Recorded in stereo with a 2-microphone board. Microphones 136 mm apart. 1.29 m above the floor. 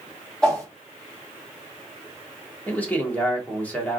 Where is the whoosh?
5° left (ahead or behind), 1.7 m.